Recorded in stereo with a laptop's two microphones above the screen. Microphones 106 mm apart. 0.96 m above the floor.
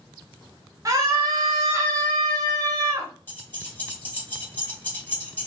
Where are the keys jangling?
20° left (ahead or behind), 0.9 m.